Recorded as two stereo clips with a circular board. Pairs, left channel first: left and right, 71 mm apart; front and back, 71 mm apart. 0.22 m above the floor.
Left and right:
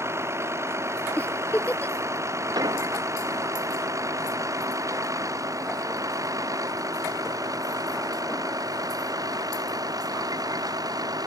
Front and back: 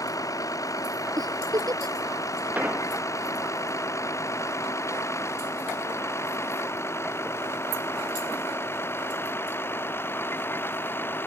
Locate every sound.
0.0 s a vehicle: 40° right; by 11.3 s 60° right
1.2 s a giggle: 160° left
2.5 s an explosion: 115° right